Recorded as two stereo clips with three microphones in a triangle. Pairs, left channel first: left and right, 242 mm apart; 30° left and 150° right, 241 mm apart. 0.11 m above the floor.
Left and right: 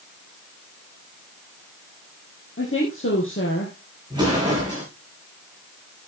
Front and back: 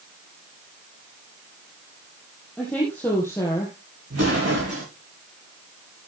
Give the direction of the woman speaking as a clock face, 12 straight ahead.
8 o'clock.